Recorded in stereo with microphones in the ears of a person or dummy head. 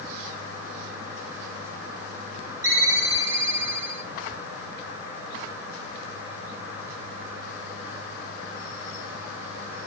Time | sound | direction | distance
2.6 | a ringtone | 15° right (ahead or behind) | 3 m